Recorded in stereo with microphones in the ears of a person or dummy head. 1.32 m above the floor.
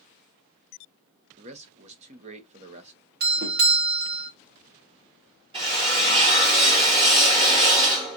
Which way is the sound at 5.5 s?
30° right (ahead or behind).